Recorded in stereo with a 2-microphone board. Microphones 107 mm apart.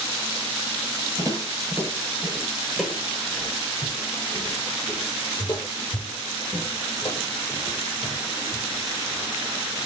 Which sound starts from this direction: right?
Footsteps, at 1.2 s.